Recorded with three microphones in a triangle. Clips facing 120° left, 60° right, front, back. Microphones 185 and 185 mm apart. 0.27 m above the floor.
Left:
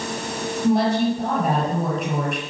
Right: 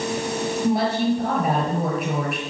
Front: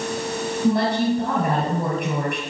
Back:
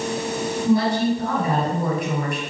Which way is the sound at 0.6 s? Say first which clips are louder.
Left 3 dB, back 1 dB; 30° left.